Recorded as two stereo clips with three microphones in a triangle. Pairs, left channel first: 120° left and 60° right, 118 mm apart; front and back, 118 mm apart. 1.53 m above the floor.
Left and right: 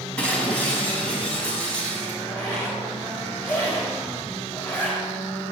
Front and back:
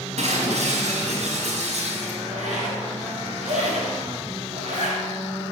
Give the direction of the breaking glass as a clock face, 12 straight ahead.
5 o'clock.